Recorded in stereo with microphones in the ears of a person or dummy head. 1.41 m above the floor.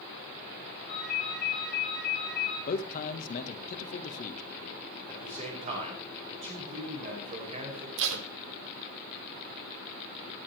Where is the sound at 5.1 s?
35° right (ahead or behind), 5 m.